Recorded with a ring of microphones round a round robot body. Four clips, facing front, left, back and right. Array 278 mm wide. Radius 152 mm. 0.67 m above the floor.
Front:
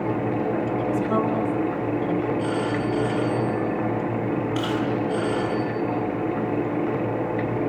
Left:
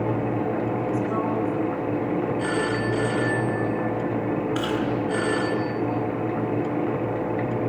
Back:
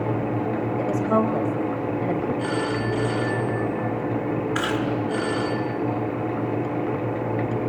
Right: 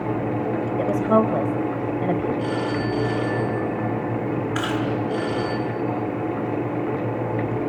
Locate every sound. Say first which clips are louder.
0.8 s a woman speaking: right 6 dB, back 4 dB; 105° right, 4.5 m
2.4 s a phone ringing: even, front 1 dB; 110° left, 7 m
4.5 s chewing: right 1 dB, even; 160° right, 8.5 m